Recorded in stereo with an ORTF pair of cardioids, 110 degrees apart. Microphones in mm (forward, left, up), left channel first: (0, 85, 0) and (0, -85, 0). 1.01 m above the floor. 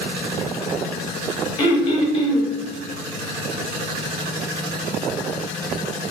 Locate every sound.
1.6 s throat clearing: 25° left, 0.7 m